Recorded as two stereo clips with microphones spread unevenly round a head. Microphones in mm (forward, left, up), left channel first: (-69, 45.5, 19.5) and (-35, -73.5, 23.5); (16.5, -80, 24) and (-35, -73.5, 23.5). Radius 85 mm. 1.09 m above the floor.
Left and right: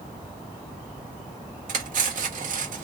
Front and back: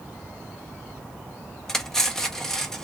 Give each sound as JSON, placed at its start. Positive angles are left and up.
{"t": 1.7, "sound": "cutlery clinking", "azimuth_deg": -90, "distance_m": 1.1}